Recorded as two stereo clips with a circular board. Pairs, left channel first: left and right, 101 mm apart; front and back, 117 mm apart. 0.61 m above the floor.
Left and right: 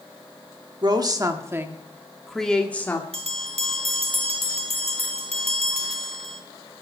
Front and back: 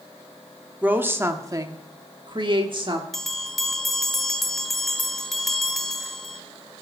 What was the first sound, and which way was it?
A woman speaking, 110° right.